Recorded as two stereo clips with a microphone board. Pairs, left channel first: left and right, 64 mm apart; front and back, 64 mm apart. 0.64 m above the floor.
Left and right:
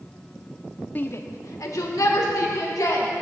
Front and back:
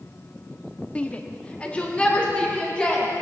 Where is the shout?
55° left, 0.6 m; by 3.1 s 70° left, 3.5 m.